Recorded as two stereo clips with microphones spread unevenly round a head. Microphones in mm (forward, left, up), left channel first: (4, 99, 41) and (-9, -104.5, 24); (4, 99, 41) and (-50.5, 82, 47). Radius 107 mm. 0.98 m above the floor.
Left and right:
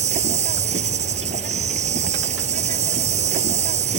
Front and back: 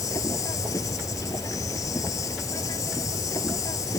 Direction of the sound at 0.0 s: 35° right.